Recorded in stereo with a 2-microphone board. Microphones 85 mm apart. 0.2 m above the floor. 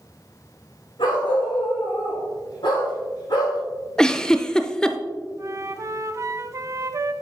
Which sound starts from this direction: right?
A flute, at 5.4 s.